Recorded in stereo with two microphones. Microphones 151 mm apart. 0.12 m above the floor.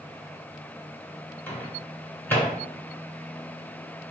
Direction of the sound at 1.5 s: 15° left (ahead or behind).